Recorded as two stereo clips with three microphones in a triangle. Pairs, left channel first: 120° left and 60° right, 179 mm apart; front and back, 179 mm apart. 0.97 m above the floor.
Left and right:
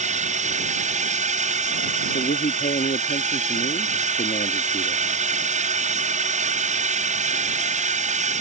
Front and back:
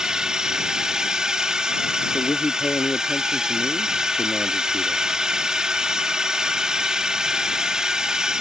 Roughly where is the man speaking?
Left.